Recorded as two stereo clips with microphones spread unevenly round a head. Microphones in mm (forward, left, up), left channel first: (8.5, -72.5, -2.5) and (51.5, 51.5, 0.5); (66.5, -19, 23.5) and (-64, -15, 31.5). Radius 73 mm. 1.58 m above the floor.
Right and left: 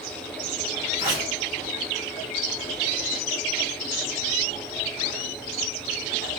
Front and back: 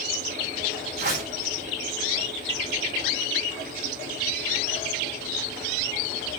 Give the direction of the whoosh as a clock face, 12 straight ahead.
7 o'clock.